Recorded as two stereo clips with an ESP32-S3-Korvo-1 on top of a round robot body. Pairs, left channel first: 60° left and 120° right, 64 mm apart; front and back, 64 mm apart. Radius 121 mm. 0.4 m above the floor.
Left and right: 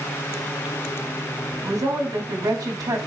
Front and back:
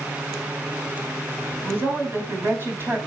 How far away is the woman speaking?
About 3.5 m.